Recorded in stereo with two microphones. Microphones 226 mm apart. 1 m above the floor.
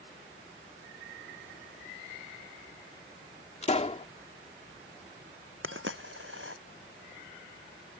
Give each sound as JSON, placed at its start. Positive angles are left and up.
{"t": 3.6, "sound": "a pop", "side_deg": 30}
{"t": 5.6, "sound": "a dropped coin", "side_deg": -65}